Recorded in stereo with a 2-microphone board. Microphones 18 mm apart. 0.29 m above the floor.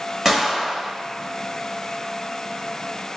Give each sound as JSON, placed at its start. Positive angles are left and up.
{"t": 0.2, "sound": "a gunshot", "side_deg": -20, "distance_m": 0.8}